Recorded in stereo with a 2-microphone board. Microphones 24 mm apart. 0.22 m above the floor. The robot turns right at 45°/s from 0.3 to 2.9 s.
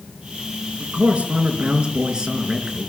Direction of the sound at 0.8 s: 115° right.